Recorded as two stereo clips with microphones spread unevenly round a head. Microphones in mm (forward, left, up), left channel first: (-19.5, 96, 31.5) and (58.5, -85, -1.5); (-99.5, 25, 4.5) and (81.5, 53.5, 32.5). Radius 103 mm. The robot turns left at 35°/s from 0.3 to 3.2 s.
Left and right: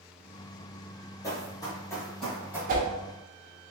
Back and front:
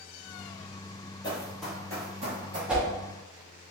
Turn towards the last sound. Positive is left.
turn(degrees=-70)